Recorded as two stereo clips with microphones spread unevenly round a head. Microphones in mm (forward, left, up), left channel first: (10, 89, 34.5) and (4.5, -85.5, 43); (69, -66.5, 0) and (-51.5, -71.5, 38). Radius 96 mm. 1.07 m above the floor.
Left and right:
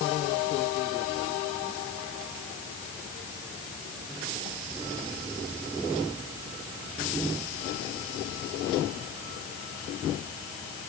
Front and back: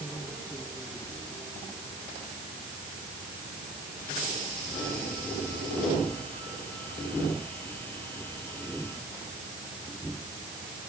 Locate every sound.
Only background noise.